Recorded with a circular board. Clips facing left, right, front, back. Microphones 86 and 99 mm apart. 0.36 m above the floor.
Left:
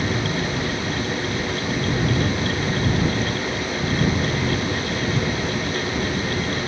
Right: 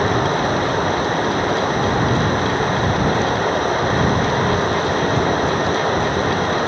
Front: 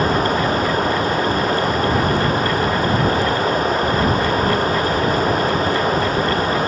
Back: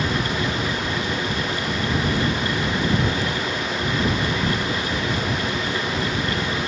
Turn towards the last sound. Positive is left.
turn(degrees=-45)